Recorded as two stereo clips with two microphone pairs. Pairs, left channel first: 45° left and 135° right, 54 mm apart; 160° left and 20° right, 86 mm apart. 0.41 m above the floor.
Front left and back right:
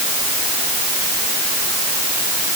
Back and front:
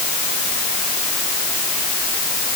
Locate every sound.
Only background noise.